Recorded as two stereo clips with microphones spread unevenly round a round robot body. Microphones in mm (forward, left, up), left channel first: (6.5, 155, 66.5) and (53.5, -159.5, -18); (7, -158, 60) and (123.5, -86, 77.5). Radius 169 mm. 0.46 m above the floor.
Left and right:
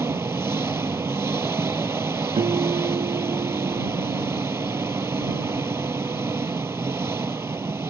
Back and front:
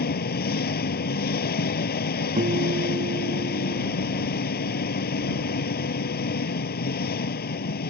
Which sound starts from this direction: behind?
An engine running, at 0.0 s.